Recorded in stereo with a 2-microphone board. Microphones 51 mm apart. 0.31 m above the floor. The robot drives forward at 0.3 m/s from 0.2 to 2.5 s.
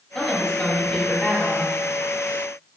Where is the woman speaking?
10° left (ahead or behind), 1.3 m; by 1.7 s 15° left (ahead or behind), 1.1 m.